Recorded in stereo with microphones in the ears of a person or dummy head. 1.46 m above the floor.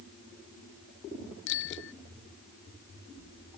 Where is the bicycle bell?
65° left (ahead or behind).